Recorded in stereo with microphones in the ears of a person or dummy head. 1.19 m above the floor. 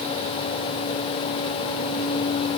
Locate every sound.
Only background noise.